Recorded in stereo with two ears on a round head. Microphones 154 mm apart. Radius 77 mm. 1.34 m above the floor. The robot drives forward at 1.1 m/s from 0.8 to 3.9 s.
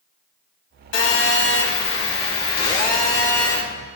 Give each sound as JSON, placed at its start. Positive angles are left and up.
{"t": 0.9, "sound": "a phone buzzing", "side_deg": 80, "distance_m": 2.5}